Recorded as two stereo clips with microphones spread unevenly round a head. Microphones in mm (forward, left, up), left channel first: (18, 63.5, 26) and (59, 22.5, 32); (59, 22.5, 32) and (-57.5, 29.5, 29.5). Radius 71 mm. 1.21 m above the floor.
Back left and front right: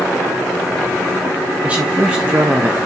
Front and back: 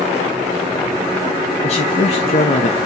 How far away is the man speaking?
About 1.8 m.